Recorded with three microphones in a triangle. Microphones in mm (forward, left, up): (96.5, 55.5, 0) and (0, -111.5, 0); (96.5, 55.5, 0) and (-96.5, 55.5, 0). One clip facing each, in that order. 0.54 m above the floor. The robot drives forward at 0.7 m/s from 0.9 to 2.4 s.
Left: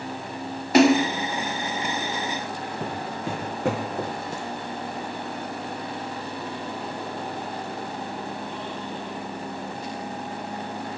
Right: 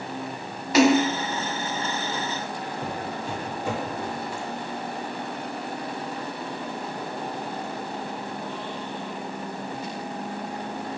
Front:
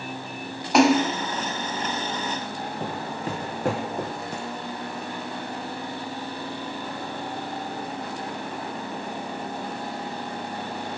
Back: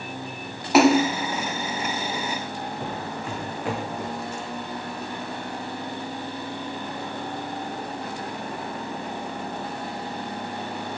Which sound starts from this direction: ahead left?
Footsteps, at 2.8 s.